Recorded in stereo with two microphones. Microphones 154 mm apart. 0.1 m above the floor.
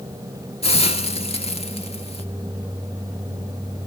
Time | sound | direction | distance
0.6 | a hiss | 40° left (ahead or behind) | 1.4 m